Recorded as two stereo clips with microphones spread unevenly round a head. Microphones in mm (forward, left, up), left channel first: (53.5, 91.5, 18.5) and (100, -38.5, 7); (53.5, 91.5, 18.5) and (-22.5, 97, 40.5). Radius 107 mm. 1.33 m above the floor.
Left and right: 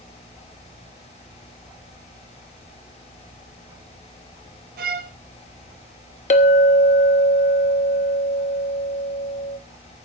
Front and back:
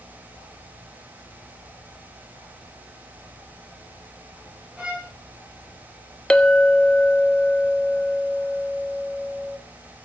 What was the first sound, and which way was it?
A violin, 105° right.